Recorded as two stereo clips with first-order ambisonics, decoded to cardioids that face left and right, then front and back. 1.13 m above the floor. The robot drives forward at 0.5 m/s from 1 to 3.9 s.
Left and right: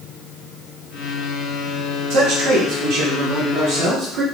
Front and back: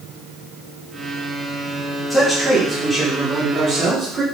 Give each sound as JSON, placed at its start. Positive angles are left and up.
{"t": 2.1, "sound": "a man speaking", "azimuth_deg": -80, "distance_m": 1.3}